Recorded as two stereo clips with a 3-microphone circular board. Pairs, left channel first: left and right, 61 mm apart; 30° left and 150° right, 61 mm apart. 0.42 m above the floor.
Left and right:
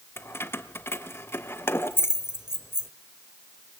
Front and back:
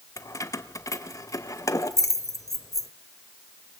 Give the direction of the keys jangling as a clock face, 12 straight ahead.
10 o'clock.